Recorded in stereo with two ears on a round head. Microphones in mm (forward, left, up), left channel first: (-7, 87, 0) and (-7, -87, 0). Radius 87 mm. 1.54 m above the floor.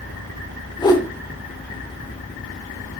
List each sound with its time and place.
0.8 s a whoosh: 20° left (ahead or behind), 1.6 m